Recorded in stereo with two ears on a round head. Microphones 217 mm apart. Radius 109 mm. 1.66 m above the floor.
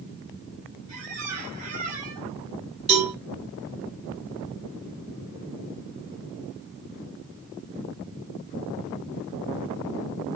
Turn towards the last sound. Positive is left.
turn(degrees=-25)  # may be behind; listen again after turning